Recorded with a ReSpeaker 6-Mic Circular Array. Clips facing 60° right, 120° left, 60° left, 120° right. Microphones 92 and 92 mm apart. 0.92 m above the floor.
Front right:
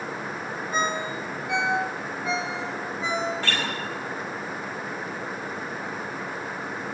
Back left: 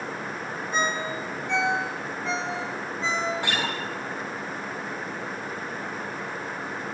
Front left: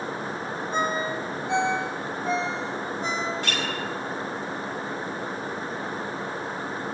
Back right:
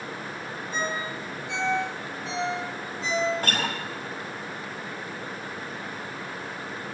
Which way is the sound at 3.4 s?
165° right.